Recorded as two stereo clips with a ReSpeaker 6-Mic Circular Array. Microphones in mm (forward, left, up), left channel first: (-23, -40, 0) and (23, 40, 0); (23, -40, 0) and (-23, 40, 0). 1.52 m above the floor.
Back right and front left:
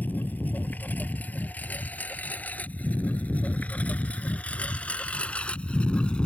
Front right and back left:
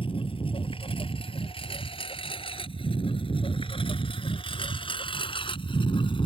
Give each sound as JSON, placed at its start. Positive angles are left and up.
{"t": 0.0, "sound": "a lawn mower", "azimuth_deg": -50}